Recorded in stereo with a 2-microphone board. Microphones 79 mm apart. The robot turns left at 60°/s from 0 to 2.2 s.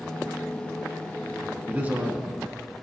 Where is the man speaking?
20° right (ahead or behind), 1.3 m; by 2.5 s 25° right (ahead or behind), 1.3 m.